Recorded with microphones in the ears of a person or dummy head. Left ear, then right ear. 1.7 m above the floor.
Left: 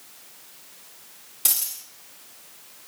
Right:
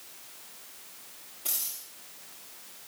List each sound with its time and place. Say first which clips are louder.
1.4 s a dropped coin: left 8 dB; 55° left (ahead or behind), 2 m